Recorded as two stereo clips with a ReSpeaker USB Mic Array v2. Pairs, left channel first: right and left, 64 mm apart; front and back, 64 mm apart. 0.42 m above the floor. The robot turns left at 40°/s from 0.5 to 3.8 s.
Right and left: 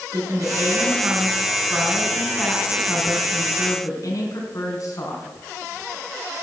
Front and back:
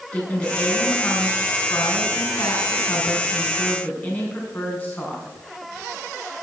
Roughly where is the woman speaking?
Left.